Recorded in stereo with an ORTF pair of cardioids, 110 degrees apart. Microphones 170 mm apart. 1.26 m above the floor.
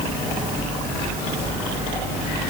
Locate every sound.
Only background noise.